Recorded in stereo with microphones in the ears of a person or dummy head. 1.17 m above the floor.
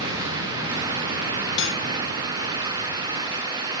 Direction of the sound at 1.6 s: 65° left (ahead or behind).